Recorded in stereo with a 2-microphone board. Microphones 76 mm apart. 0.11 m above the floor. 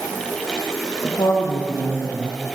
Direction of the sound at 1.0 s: 75° left (ahead or behind).